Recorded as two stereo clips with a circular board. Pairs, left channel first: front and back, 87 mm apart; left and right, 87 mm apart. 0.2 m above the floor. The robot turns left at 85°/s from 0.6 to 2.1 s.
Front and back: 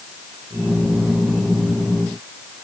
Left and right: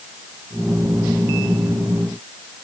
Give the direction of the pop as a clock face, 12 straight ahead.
I don't hear a pop.